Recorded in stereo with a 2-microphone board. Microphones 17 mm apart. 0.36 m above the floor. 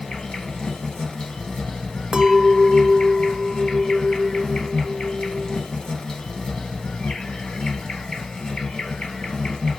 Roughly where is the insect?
Left.